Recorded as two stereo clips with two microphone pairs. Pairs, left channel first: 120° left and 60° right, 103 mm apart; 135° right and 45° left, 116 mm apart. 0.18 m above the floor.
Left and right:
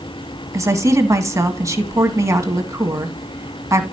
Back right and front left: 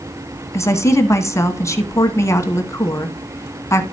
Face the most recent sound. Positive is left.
turn(degrees=-95)